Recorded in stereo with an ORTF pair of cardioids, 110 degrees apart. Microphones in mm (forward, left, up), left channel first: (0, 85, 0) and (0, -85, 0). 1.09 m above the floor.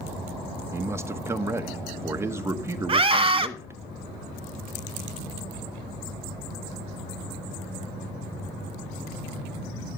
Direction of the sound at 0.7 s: 15° right.